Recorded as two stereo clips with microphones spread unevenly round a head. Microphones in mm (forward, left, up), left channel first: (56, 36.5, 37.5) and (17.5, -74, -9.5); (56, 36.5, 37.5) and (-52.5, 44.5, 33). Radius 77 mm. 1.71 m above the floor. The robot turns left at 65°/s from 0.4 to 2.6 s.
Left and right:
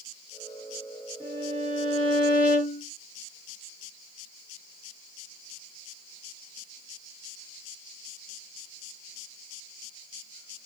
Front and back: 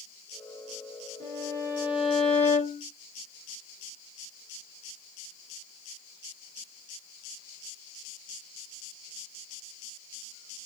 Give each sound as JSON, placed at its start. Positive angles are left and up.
{"t": 1.2, "sound": "a violin", "azimuth_deg": 145, "distance_m": 1.2}